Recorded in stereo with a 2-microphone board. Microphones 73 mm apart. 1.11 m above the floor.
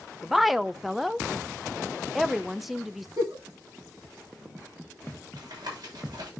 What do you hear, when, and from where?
0.2 s a woman speaking: centre (ahead or behind), 0.6 m
3.2 s a giggle: 65° right (ahead or behind), 9 m
5.4 s tapping: 70° right (ahead or behind), 7 m